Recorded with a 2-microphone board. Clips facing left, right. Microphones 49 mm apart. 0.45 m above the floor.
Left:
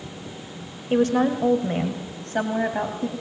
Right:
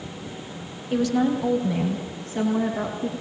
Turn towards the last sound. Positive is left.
turn(degrees=65)  # may be behind; listen again after turning